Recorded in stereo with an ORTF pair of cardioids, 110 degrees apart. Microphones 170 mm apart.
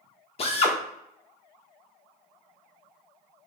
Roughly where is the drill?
Ahead left.